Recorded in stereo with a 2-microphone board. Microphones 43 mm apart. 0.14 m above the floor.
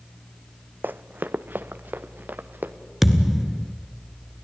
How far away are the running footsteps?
About 0.5 m.